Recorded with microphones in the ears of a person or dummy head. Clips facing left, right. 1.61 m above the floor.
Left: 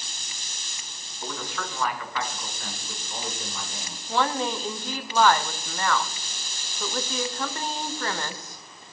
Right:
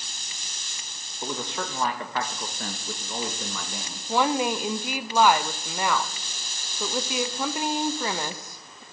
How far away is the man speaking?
About 1.3 m.